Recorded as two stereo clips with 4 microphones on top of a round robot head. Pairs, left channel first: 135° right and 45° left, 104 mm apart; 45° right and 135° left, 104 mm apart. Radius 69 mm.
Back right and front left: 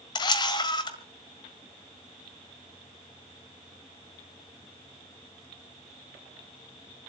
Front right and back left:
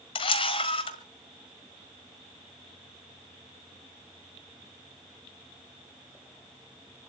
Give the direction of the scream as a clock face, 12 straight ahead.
No scream in this recording.